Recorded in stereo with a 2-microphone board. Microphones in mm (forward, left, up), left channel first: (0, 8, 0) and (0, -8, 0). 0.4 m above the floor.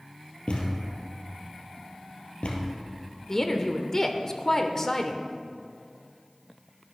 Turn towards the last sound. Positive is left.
turn(degrees=25)  # may be behind; listen again after turning